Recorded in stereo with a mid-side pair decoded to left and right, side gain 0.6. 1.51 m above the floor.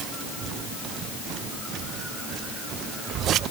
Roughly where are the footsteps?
No footsteps in this recording.